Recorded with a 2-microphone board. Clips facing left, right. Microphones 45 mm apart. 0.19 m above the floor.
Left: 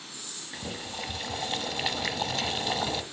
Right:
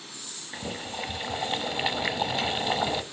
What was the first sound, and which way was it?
Boiling, 15° right (ahead or behind).